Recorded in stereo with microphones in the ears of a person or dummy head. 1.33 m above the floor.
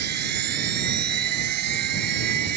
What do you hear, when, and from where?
0.0 s a machine running: 55° right (ahead or behind)